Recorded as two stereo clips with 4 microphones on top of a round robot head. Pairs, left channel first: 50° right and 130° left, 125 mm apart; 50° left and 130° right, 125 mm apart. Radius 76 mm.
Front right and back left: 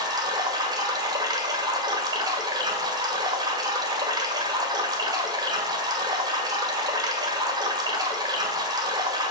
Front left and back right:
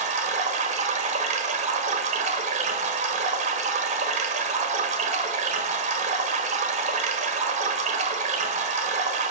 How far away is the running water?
About 1.6 m.